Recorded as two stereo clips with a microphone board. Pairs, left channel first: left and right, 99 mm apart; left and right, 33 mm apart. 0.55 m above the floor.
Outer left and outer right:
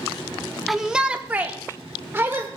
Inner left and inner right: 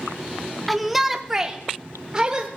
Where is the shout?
Centre (ahead or behind), 0.6 m; by 2.5 s 25° right (ahead or behind), 1.4 m.